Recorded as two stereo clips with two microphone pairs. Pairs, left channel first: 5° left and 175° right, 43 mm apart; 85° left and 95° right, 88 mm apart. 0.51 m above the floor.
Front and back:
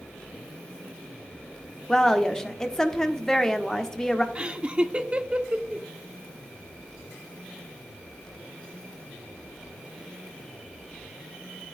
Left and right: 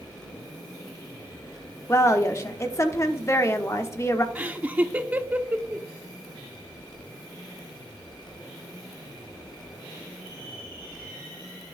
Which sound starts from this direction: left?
A woman speaking, at 1.9 s.